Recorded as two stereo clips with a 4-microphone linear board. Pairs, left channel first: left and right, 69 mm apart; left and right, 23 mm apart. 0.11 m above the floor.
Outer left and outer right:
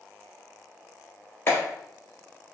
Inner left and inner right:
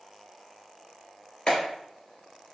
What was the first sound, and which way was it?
A clap, 35° left (ahead or behind).